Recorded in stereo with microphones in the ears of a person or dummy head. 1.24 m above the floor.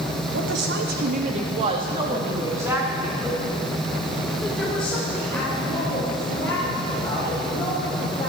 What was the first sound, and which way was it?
A woman speaking, 70° right (ahead or behind).